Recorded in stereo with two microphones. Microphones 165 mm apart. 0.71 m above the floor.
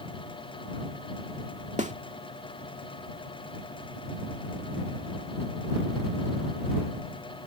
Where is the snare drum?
45° right (ahead or behind).